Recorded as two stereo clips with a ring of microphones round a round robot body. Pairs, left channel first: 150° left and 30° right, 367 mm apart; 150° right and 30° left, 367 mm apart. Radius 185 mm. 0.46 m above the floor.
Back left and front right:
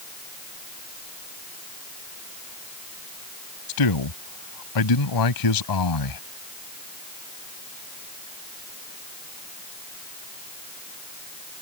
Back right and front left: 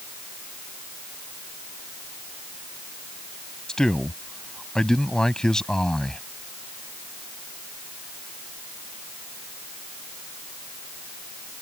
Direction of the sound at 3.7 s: 120° left.